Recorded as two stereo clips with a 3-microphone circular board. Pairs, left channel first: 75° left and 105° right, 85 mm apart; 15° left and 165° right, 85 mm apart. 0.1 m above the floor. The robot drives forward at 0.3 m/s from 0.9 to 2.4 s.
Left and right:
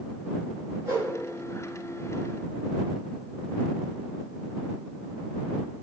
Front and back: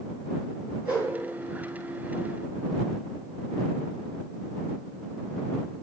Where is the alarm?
No alarm in this recording.